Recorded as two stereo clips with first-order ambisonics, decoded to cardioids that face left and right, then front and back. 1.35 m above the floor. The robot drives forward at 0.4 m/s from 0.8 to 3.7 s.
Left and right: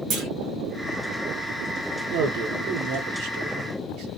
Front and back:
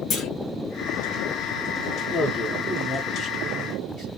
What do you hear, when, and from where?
0.1 s a clunk: 50° right, 1.2 m
2.1 s a man speaking: 80° right, 1.3 m; by 4.1 s 110° right, 1.4 m